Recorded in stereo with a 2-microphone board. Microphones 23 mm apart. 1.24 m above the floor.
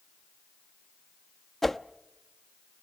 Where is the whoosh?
10° left (ahead or behind), 0.7 m.